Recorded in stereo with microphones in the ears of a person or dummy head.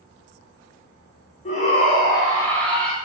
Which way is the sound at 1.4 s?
35° left (ahead or behind).